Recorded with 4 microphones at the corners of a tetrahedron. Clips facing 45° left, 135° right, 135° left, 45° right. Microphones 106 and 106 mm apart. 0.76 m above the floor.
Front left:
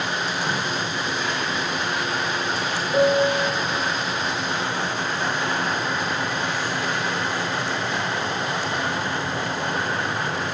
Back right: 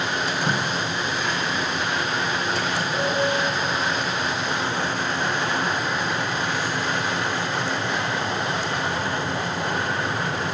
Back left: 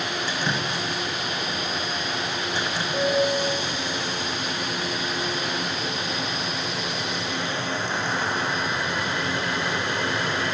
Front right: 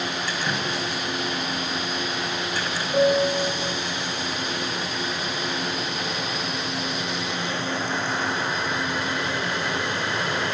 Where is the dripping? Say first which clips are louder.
Back right 1 dB, even; 155° right, 1.9 m.